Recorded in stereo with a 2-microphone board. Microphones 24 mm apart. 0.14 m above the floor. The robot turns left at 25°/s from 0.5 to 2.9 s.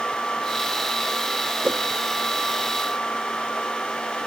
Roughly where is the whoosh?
Right.